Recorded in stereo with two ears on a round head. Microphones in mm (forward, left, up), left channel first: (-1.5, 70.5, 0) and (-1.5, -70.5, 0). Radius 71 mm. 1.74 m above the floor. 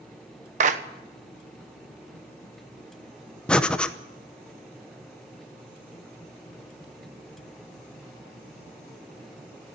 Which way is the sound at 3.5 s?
5° left (ahead or behind).